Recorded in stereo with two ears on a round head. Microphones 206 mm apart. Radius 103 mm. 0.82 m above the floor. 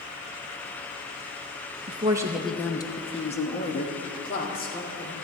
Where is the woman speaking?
25° right (ahead or behind), 0.7 m; by 5.1 s 40° left (ahead or behind), 2.5 m.